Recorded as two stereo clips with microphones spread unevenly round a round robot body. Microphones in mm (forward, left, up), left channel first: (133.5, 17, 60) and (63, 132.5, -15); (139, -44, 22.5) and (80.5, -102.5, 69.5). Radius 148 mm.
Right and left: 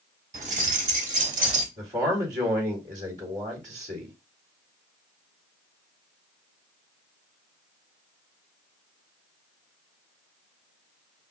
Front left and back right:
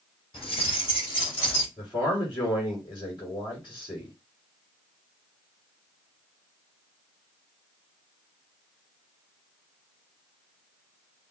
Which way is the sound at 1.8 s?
140° left.